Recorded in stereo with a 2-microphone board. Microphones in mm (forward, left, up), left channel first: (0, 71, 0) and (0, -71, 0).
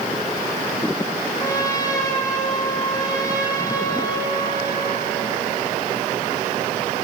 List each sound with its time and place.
1.4 s a trumpet: 25° left (ahead or behind), 5 m